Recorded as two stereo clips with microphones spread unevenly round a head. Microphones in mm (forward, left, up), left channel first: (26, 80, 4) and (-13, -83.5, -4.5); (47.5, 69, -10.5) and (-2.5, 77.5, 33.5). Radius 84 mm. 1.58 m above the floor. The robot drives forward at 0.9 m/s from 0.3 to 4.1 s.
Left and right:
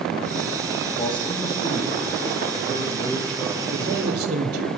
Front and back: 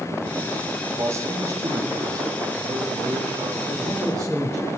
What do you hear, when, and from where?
1.0 s a man speaking: 140° left, 2.5 m; by 4.7 s 160° left, 5 m
3.7 s a man speaking: 135° right, 3 m